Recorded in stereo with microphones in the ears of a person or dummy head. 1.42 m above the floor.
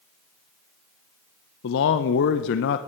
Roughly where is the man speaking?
Left.